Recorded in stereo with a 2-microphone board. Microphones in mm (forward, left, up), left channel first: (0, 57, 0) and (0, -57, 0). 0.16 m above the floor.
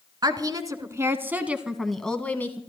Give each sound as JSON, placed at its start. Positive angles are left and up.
{"t": 0.2, "sound": "a woman speaking", "side_deg": -40, "distance_m": 1.5}